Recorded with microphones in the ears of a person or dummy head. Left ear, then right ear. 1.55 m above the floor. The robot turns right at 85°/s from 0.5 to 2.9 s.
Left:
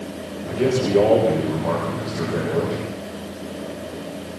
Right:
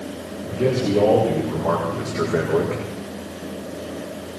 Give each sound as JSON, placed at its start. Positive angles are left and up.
{"t": 0.5, "sound": "a man speaking", "azimuth_deg": 85, "distance_m": 7.0}